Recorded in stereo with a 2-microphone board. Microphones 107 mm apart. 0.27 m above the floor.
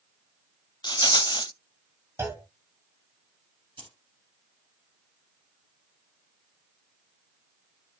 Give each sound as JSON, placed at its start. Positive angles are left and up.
{"t": 0.8, "sound": "a rattle", "side_deg": 40, "distance_m": 0.5}
{"t": 2.2, "sound": "a clunk", "side_deg": -25, "distance_m": 1.1}
{"t": 3.8, "sound": "keys jangling", "side_deg": -50, "distance_m": 3.0}